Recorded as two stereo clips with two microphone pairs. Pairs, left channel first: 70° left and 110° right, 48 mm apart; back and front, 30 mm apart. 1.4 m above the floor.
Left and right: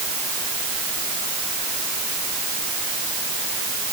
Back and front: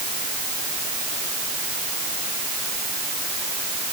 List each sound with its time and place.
Only background noise.